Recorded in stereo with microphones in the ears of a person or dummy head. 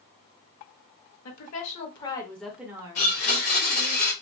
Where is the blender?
45° left (ahead or behind), 1.0 m.